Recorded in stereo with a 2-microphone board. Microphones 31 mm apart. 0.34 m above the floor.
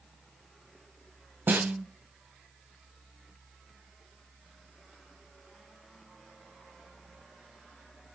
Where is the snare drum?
75° right (ahead or behind), 0.5 m.